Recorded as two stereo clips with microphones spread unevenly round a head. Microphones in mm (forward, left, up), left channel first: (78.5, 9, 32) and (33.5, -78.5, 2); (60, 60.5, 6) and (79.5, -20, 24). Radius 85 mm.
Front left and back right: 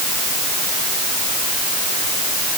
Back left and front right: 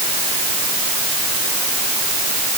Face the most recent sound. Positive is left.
No sound to turn to.